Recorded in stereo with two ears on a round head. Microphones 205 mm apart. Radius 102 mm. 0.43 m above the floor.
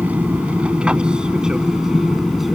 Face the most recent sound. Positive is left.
turn(degrees=0)  # may be behind; listen again after turning